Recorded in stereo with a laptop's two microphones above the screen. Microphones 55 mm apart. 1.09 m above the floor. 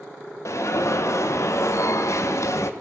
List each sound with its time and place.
0.5 s an alarm: 60° left (ahead or behind), 0.8 m